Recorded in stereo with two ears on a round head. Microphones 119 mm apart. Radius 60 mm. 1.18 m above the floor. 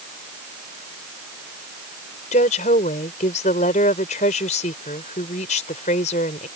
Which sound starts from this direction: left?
A woman speaking, at 2.3 s.